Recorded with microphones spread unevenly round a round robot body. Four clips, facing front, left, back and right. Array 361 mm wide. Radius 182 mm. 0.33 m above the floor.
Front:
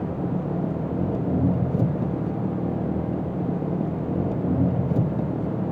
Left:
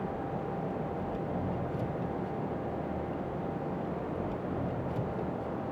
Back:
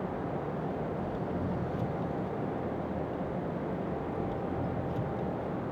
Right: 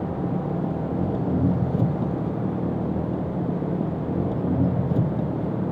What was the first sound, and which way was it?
An engine running, 45° right.